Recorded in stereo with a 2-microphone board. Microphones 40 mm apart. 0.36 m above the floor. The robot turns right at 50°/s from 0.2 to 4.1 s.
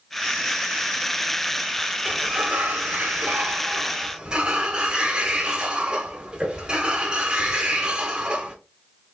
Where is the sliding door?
135° right, 1.1 m; by 8.6 s 30° right, 1.1 m.